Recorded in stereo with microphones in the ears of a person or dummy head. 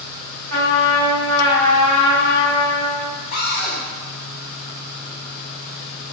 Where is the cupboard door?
40° left (ahead or behind), 0.6 m.